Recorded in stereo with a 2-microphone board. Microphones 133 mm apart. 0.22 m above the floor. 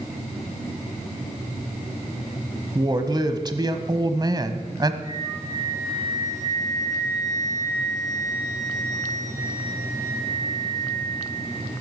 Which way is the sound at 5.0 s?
20° right (ahead or behind).